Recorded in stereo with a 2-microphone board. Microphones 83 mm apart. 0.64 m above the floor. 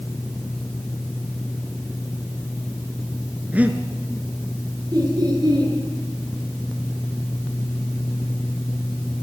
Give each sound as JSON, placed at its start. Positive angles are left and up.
{"t": 3.5, "sound": "breathing", "side_deg": -20, "distance_m": 2.0}
{"t": 4.9, "sound": "laughter", "side_deg": -55, "distance_m": 9.0}